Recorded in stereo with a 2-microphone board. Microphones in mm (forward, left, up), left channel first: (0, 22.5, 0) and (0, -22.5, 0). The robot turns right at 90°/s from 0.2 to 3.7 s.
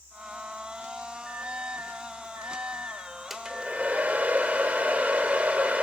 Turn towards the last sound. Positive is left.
turn(degrees=-140)